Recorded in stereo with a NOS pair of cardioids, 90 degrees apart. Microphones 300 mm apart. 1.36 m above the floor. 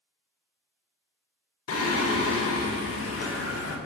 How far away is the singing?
About 1.2 m.